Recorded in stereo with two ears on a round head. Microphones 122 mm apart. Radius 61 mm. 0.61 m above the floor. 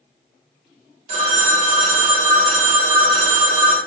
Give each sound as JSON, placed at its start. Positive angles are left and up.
{"t": 1.1, "sound": "a phone ringing", "side_deg": -45, "distance_m": 0.7}